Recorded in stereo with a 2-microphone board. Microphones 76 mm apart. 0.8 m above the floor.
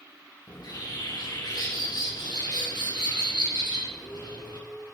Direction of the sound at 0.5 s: 75° left (ahead or behind).